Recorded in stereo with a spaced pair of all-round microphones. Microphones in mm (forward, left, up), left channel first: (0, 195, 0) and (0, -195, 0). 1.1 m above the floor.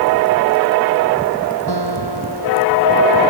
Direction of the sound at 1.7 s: 80° left.